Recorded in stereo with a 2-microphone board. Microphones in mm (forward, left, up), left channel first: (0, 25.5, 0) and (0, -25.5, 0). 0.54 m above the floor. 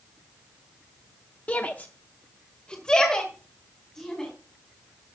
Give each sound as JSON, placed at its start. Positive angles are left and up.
{"t": 1.5, "sound": "a shout", "side_deg": 30, "distance_m": 0.8}